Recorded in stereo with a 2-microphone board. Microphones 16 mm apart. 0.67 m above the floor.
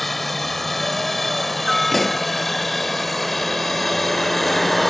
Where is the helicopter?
5° left (ahead or behind); by 4.9 s 10° left (ahead or behind).